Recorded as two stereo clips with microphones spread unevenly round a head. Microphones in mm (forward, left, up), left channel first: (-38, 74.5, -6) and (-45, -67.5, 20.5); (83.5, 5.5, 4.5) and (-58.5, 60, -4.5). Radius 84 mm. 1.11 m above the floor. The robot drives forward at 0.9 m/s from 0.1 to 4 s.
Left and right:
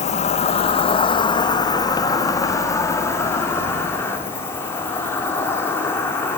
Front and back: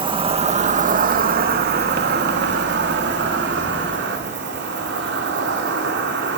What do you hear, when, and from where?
0.0 s an insect: 105° left, 1.6 m; by 6.4 s 160° left, 4 m